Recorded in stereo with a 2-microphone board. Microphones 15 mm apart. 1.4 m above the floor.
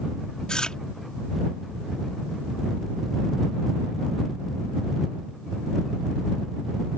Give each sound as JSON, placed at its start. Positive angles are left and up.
{"t": 0.5, "sound": "chewing", "side_deg": 85}